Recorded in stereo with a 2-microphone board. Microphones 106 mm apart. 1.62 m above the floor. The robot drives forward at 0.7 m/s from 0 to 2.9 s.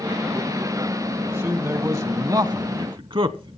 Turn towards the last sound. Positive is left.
turn(degrees=-50)  # may be behind; listen again after turning